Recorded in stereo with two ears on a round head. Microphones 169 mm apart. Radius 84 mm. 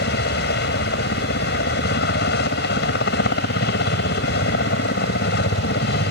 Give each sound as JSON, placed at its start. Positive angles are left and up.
{"t": 0.0, "sound": "a helicopter", "side_deg": 60}